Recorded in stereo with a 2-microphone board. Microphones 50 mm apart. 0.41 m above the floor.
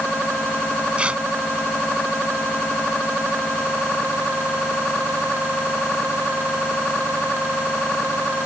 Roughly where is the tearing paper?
Right.